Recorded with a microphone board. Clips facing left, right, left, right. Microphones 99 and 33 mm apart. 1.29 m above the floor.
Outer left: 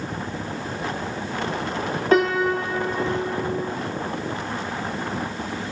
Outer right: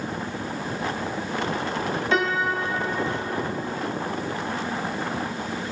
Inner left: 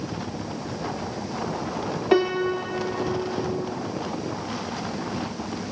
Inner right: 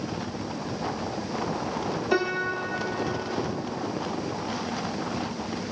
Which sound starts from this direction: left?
A piano, at 2.1 s.